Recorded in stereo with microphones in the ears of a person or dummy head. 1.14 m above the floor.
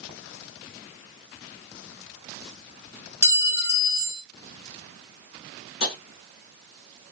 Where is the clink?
10° right (ahead or behind), 1.0 m.